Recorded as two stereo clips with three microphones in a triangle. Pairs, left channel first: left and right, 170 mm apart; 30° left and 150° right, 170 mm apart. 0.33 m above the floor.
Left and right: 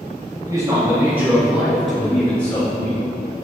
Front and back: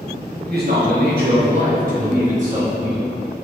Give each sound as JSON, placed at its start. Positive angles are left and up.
{"t": 0.4, "sound": "a man speaking", "azimuth_deg": -155, "distance_m": 2.0}